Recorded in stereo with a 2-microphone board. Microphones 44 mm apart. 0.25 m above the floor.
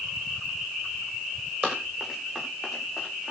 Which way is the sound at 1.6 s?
15° right (ahead or behind).